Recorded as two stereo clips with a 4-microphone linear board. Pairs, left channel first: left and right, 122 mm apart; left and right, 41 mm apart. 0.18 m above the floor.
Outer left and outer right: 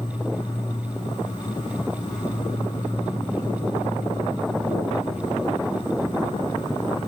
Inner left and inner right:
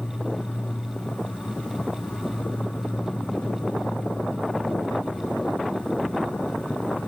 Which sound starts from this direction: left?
An insect, at 0.0 s.